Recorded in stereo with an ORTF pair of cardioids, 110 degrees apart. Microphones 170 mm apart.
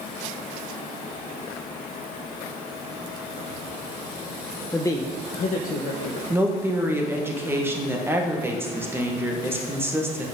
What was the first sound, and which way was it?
A man speaking, 10° left.